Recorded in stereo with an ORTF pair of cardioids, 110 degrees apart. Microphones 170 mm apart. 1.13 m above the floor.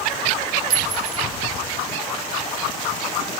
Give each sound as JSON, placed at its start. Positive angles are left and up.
{"t": 0.7, "sound": "a clink", "azimuth_deg": -70, "distance_m": 2.0}